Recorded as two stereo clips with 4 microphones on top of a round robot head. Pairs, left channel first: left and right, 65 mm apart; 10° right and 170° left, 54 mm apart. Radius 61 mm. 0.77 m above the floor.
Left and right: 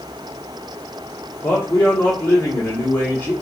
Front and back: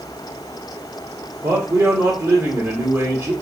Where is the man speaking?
150° left, 1.5 m.